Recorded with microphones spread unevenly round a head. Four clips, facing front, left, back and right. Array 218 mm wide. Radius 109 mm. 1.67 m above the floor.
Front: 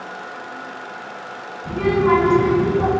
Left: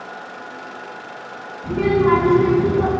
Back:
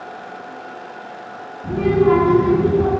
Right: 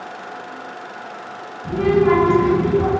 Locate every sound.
1.6 s a child speaking: 150° left, 2.0 m; by 2.9 s 120° left, 1.0 m